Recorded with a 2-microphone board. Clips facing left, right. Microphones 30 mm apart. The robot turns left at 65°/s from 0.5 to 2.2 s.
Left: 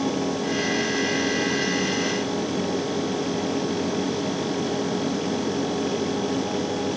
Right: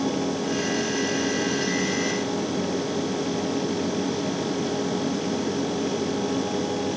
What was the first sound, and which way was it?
Only background noise.